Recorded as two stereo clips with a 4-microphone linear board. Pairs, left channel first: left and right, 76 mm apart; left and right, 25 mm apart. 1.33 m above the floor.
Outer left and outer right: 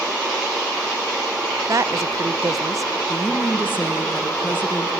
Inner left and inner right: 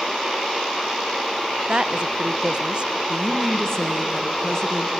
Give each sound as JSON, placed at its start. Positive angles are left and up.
{"t": 1.7, "sound": "a woman speaking", "side_deg": -45, "distance_m": 0.5}
{"t": 3.1, "sound": "a woman speaking", "side_deg": 25, "distance_m": 1.6}